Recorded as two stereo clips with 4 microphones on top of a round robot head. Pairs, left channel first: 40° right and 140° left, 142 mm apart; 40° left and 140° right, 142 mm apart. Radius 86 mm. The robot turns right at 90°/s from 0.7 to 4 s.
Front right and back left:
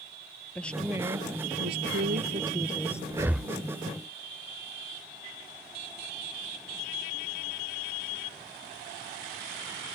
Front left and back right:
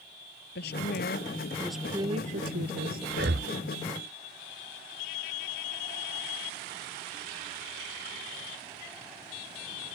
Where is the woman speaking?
40° left; by 3.0 s 110° right.